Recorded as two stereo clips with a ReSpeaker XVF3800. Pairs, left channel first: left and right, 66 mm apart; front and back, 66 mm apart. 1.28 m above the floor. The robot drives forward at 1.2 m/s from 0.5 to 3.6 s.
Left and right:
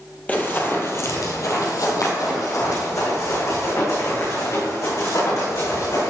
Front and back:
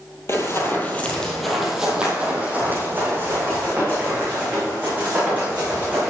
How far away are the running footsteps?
About 2.0 m.